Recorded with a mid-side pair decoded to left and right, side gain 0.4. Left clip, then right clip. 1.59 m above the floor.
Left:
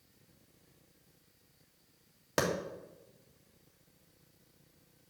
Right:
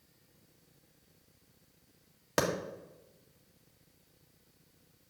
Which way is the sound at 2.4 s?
15° right.